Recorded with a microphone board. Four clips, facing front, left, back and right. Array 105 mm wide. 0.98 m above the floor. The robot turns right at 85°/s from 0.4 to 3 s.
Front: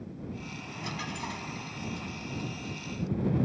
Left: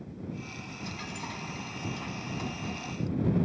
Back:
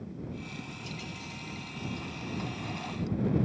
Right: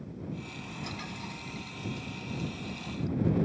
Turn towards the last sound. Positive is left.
turn(degrees=170)